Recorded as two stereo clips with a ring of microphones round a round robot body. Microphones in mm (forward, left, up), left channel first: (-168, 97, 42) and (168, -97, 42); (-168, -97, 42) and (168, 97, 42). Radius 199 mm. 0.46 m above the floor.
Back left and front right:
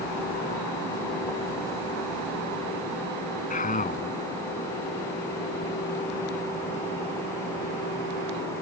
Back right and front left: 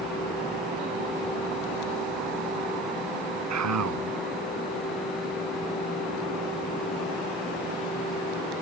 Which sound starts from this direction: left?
A man speaking, at 3.5 s.